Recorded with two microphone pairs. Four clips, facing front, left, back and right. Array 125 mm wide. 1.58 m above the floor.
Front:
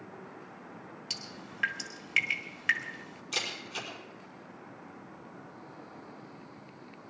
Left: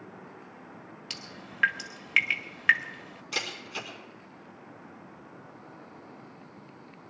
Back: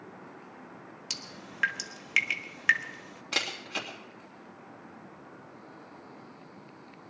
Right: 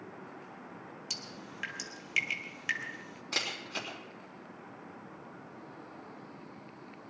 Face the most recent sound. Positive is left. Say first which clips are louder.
# left 2 dB, back 3 dB
turn(degrees=-155)